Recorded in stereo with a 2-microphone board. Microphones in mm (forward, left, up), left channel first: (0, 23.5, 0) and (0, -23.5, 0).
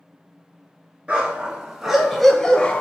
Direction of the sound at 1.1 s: 25° right (ahead or behind).